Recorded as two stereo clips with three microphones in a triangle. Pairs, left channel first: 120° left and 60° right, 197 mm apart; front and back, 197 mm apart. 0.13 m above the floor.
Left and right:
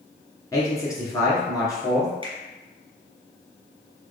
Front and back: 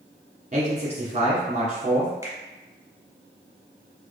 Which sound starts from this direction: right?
A finger snap, at 2.2 s.